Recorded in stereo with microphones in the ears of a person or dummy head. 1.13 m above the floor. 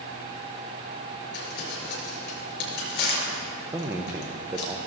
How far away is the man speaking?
About 0.6 m.